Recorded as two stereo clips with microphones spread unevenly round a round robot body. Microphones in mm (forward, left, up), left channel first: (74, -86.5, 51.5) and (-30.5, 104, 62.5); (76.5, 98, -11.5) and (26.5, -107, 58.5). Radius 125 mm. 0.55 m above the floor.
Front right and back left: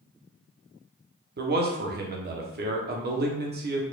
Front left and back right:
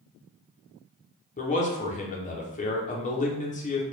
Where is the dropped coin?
No dropped coin in this recording.